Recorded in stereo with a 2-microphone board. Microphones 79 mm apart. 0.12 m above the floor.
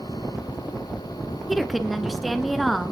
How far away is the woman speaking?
About 1.1 m.